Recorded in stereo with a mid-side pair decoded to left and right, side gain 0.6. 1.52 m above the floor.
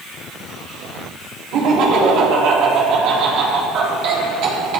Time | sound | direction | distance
1.5 | laughter | 65° right | 3.5 m